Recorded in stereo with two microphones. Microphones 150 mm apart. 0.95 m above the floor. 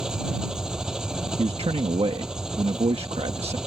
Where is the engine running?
5° right (ahead or behind).